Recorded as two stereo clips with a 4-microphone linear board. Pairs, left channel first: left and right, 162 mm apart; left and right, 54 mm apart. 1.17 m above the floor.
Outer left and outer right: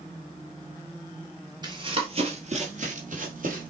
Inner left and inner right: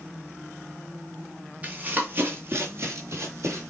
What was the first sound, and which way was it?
Running footsteps, 25° right (ahead or behind).